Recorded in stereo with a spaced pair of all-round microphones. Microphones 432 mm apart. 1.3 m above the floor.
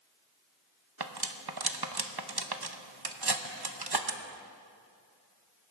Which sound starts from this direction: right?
Cutlery clinking, at 1.0 s.